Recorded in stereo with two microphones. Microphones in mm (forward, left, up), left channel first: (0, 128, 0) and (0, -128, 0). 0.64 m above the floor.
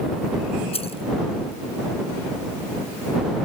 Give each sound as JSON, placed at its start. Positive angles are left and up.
{"t": 0.7, "sound": "keys jangling", "side_deg": 25}